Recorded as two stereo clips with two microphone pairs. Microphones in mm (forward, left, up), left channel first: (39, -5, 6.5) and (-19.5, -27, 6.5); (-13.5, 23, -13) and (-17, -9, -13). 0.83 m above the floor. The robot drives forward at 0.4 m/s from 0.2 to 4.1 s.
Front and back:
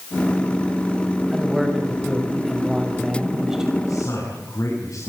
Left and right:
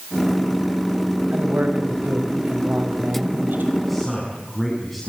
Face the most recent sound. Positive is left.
turn(degrees=5)